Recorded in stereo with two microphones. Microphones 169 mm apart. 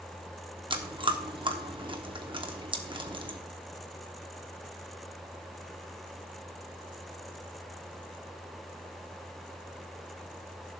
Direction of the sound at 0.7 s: 30° right (ahead or behind).